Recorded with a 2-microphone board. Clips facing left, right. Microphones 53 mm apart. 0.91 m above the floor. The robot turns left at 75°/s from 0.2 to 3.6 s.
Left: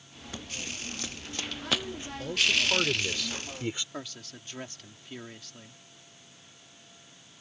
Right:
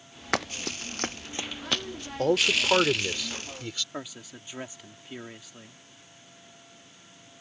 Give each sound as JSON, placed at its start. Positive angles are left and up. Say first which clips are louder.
{"t": 0.3, "sound": "running footsteps", "louder": "right 10 dB", "side_deg": -80}
{"t": 2.2, "sound": "a man speaking", "louder": "right 4 dB", "azimuth_deg": -100}
{"t": 3.9, "sound": "a man speaking", "louder": "right 2 dB", "side_deg": -15}